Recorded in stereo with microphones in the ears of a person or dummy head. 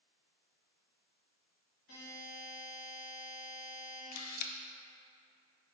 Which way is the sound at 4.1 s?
50° left (ahead or behind).